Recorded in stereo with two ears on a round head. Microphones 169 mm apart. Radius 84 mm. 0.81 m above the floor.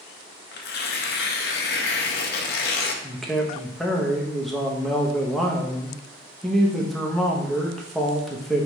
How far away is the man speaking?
About 0.7 m.